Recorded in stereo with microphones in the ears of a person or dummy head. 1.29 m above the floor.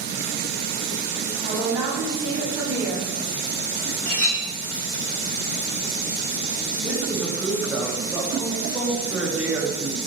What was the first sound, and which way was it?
A woman speaking, 15° right (ahead or behind).